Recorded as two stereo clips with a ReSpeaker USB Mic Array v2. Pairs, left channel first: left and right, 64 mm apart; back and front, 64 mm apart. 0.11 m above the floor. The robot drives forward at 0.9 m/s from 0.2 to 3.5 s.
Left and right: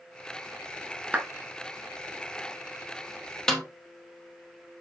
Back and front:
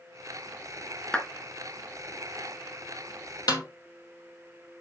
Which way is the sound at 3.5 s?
175° left.